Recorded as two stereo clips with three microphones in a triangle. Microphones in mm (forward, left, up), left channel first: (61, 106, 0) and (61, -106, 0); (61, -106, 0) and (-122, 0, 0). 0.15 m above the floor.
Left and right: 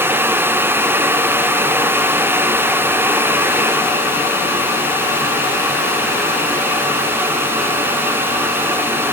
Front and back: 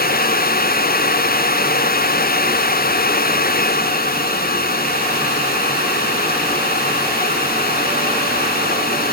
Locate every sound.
Only background noise.